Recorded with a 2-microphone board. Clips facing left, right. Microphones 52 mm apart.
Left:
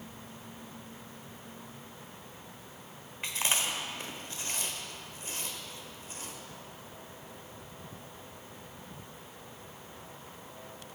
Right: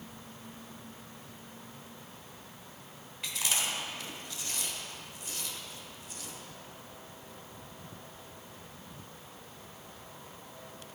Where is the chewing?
40° left (ahead or behind), 1.0 m.